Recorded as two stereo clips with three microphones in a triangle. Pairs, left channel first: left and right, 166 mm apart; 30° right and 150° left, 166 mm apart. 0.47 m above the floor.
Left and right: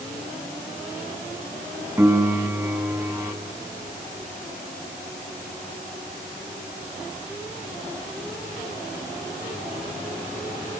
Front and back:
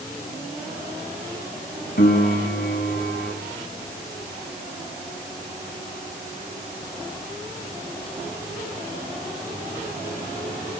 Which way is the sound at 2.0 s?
15° right.